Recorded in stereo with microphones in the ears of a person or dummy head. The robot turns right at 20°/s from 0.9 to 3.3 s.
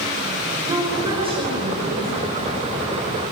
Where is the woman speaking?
15° right (ahead or behind), 6 m; by 2.1 s 40° right (ahead or behind), 6 m.